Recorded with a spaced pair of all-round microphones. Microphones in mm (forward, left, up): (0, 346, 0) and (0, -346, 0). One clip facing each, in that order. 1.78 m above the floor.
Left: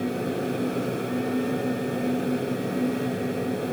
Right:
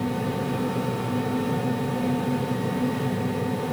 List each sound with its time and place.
0.0 s a fan: 30° right (ahead or behind), 0.8 m